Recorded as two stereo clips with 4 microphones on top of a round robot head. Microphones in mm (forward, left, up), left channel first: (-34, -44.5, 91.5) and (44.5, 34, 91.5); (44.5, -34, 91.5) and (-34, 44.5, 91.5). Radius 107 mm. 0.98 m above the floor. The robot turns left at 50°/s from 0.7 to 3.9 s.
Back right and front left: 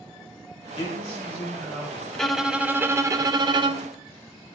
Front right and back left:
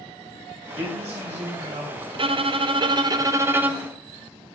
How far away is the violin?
About 0.6 m.